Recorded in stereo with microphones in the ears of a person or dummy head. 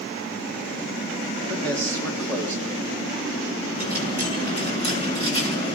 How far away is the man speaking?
About 3 m.